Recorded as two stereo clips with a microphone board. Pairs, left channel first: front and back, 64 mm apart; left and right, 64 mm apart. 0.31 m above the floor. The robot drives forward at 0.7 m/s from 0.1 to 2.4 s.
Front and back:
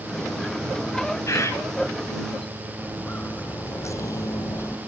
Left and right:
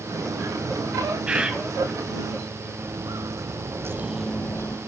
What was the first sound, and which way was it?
A bird, 20° right.